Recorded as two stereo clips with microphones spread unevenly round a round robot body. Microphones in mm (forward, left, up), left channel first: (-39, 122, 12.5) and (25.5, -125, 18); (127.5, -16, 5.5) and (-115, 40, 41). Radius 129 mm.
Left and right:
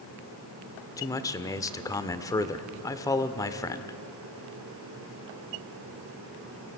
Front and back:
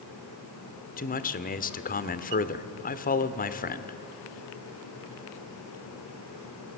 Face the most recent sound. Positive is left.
turn(degrees=30)